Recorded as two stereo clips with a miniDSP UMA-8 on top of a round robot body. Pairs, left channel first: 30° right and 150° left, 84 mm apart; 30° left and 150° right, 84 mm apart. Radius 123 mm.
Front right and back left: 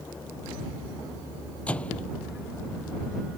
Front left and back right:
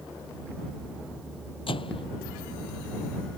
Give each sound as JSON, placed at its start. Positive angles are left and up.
{"t": 1.7, "sound": "a microwave", "azimuth_deg": 45}